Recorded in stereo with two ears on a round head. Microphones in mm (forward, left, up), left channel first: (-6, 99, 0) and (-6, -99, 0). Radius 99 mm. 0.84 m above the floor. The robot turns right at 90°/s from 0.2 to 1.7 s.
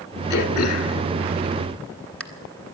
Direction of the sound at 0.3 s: 45° left (ahead or behind).